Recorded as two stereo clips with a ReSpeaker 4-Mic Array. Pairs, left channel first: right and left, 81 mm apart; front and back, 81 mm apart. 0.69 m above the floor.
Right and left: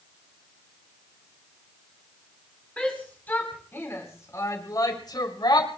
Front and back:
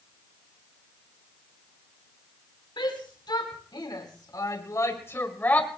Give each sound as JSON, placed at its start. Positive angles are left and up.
{"t": 2.8, "sound": "a shout", "azimuth_deg": -15, "distance_m": 4.5}